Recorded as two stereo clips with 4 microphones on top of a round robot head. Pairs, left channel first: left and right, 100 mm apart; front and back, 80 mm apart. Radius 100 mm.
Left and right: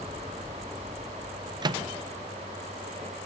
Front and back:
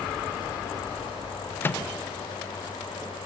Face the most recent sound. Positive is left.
turn(degrees=-60)